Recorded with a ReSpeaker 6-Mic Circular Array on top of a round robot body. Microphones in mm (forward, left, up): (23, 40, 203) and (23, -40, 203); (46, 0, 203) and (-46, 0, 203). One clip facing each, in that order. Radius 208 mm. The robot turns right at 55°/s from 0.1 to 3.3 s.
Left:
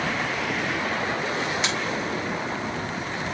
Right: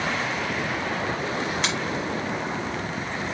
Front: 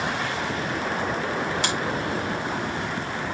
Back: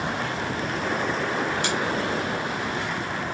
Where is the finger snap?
Straight ahead, 7 m; by 1.8 s 10° left, 7 m.